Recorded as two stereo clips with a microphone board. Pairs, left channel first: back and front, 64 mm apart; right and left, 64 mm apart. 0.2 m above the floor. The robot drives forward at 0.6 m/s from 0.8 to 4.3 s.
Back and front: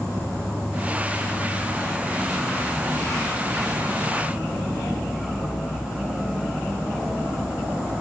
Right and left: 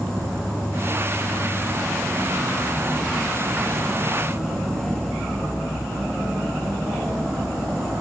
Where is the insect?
45° left, 5 m; by 8.0 s 70° left, 3.5 m.